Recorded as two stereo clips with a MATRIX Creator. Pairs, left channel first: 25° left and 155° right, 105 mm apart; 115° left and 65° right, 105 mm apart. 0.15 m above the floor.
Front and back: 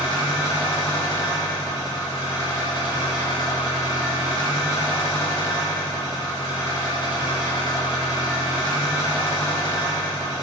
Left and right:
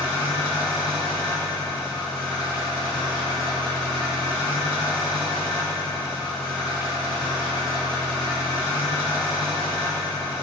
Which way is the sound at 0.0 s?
60° left.